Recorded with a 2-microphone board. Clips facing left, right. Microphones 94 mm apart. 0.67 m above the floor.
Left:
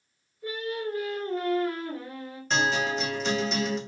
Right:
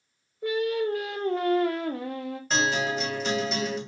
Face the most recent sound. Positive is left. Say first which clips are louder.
# even
turn(degrees=-5)  # may be behind; listen again after turning